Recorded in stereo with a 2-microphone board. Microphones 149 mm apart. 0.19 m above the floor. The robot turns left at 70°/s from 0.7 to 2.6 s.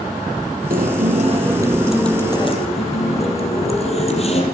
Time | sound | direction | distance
0.7 | a guitar | 90° right | 4 m